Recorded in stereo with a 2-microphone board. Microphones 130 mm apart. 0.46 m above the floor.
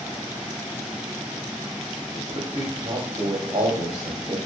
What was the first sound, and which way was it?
A man speaking, 60° right (ahead or behind).